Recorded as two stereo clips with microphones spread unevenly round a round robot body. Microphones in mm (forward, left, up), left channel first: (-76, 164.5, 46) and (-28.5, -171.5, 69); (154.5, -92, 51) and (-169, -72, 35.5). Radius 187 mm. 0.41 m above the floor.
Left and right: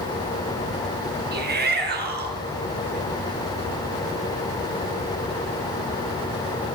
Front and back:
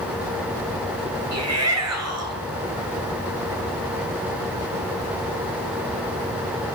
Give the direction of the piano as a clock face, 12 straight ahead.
No piano in this recording.